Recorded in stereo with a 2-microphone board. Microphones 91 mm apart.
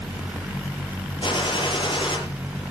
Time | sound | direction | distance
1.2 | a gunshot | 60° left (ahead or behind) | 6 m